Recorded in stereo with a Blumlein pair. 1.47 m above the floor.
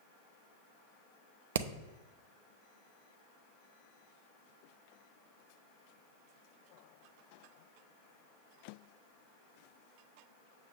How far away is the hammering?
About 0.6 m.